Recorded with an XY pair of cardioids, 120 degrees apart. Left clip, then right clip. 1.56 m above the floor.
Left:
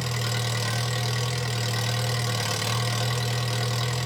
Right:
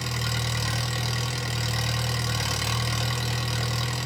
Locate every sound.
0.0 s an engine running: straight ahead, 1.0 m